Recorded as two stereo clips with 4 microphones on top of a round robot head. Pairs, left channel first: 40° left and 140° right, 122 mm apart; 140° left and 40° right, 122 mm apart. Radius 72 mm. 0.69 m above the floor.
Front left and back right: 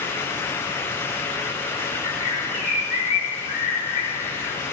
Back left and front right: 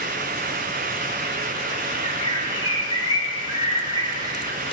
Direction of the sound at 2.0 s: 15° left.